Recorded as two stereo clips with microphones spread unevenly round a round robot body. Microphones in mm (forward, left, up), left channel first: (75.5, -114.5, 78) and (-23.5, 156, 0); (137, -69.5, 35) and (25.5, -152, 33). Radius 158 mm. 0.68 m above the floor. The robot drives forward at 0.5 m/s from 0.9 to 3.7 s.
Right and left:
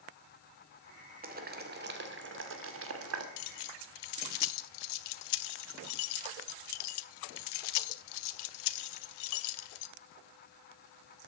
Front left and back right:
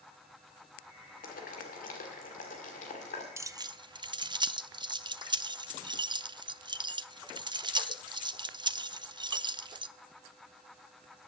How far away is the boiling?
About 2 m.